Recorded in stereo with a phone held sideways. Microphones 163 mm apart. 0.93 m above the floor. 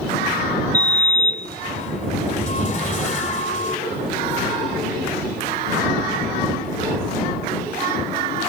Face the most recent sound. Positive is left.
turn(degrees=45)  # may be behind; listen again after turning